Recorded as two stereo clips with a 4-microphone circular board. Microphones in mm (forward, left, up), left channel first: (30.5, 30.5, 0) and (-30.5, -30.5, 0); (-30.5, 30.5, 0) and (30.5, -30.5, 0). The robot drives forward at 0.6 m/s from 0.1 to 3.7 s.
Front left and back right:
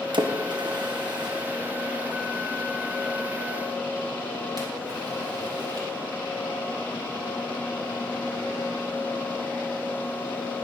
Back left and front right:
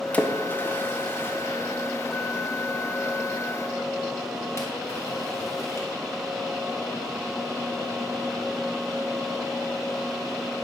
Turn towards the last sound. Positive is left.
turn(degrees=-170)